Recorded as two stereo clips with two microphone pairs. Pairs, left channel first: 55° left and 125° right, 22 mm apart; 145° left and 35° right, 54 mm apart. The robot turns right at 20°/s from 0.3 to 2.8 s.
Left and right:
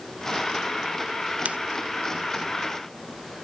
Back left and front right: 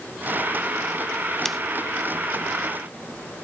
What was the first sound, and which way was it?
Scissors, 130° right.